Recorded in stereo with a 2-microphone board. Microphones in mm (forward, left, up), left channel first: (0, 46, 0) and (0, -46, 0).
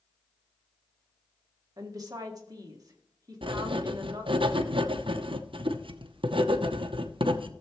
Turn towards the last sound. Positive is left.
turn(degrees=-70)  # may be behind; listen again after turning